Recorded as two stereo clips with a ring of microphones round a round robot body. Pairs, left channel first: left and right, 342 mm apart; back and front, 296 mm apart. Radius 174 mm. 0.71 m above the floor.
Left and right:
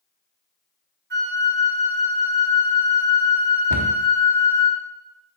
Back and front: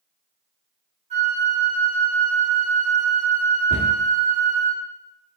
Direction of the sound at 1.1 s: 55° right.